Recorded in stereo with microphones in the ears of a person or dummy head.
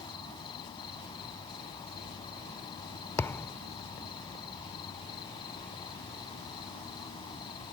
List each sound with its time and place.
0.0 s an insect: 25° left (ahead or behind)
3.2 s a thud: 10° left (ahead or behind)